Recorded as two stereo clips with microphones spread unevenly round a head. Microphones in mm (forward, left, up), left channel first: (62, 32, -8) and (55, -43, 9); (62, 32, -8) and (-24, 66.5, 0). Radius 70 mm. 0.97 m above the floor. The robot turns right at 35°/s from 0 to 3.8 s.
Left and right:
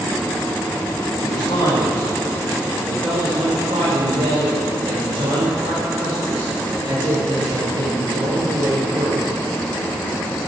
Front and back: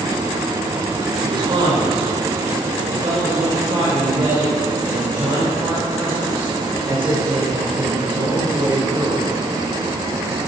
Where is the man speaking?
125° left, 4 m; by 9.3 s 145° right, 4 m.